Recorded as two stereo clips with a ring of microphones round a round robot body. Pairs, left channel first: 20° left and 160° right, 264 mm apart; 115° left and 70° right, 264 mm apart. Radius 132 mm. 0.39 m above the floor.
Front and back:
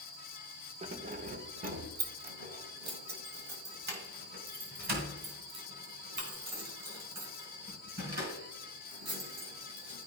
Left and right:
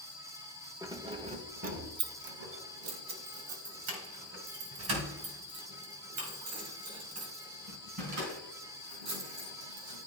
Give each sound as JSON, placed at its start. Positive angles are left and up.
{"t": 0.8, "sound": "keys jangling", "azimuth_deg": -130, "distance_m": 0.9}